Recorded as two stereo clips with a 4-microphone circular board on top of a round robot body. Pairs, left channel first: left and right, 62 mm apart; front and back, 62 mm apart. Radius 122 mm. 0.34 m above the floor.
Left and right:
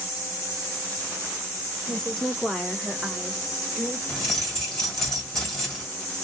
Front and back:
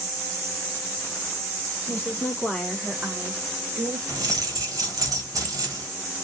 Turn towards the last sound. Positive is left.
turn(degrees=170)